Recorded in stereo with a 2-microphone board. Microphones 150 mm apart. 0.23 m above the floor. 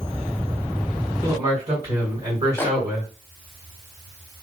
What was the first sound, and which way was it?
A man speaking, 25° right (ahead or behind).